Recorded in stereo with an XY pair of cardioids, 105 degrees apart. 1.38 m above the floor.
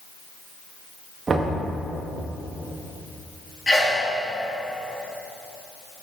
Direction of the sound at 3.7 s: 15° left.